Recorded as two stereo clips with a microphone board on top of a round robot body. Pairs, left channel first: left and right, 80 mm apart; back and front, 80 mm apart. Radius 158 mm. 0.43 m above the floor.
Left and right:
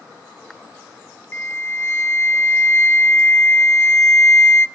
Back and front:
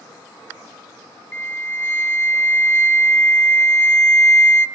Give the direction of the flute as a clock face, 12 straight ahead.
8 o'clock.